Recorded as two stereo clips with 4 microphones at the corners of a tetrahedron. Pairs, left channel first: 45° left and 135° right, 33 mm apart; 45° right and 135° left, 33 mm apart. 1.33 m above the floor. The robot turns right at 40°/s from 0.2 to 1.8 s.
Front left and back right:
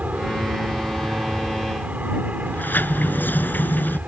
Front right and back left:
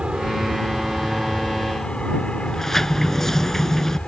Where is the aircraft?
165° right; by 4.1 s 100° right.